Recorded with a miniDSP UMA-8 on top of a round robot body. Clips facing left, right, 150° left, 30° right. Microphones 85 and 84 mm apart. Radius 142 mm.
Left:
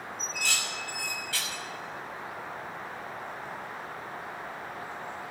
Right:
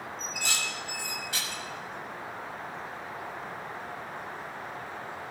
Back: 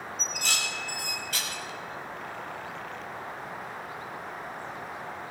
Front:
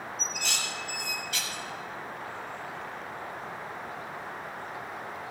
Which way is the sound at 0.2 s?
160° right.